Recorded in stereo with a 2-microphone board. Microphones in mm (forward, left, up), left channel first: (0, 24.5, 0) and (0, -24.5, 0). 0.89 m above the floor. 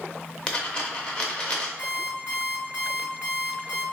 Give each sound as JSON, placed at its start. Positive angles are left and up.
{"t": 0.5, "sound": "a dropped coin", "side_deg": 25, "distance_m": 0.7}
{"t": 1.8, "sound": "an alarm clock", "side_deg": 35, "distance_m": 1.6}